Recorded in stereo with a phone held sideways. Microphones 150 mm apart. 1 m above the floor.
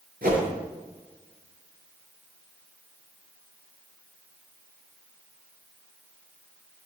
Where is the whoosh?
75° right (ahead or behind), 5.5 m.